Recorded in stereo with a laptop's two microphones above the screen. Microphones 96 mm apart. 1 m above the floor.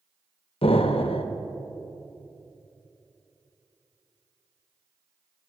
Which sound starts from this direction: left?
An explosion, at 0.6 s.